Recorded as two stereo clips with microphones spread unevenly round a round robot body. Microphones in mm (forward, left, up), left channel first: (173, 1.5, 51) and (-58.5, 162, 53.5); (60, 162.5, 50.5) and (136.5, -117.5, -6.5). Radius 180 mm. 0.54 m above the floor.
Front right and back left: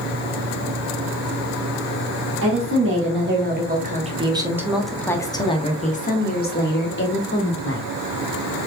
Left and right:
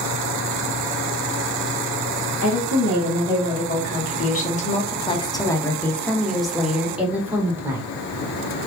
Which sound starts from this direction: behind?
A woman speaking, at 2.4 s.